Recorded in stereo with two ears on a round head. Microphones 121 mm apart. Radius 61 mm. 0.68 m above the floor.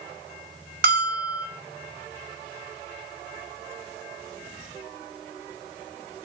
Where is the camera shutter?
I don't hear a camera shutter.